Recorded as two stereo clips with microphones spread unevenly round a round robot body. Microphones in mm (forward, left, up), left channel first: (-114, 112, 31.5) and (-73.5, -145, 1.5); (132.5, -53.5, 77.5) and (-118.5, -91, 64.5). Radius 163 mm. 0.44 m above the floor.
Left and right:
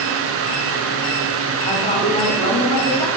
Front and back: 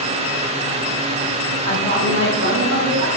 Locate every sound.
1.6 s a woman speaking: 165° left, 3.5 m; by 3.1 s 175° left, 5 m